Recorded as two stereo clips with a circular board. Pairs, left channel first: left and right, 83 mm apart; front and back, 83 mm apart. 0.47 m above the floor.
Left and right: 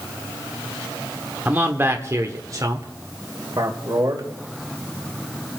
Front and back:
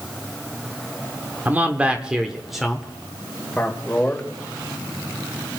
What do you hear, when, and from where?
1.4 s a man speaking: 135° right, 1.2 m; by 4.3 s 75° right, 2 m